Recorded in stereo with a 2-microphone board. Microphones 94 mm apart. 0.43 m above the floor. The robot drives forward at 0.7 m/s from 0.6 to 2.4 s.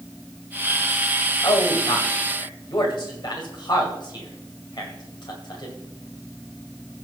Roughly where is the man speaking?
Left.